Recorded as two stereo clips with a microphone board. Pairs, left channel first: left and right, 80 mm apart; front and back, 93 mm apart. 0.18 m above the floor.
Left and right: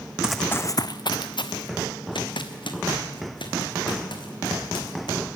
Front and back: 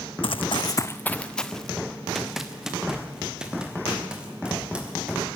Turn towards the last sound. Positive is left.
turn(degrees=100)